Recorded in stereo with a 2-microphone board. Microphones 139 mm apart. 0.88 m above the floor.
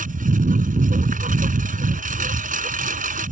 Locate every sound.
0.0 s a lawn mower: 80° right